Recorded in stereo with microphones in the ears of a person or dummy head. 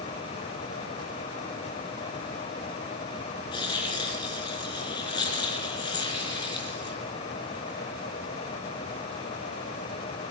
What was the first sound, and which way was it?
Tearing paper, 25° left (ahead or behind).